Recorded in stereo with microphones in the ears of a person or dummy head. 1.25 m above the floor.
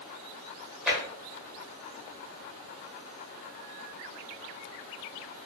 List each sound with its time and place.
0.9 s tapping: 5° right (ahead or behind), 2.0 m